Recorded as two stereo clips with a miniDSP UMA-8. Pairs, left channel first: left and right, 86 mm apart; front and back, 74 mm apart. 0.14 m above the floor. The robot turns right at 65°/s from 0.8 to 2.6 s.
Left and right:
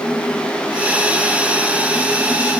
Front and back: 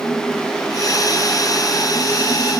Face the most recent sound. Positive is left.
No sound to turn to.